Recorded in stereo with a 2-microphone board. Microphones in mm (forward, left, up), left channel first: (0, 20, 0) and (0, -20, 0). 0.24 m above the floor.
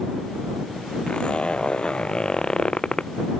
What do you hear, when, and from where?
1.1 s a zipper: 25° left (ahead or behind)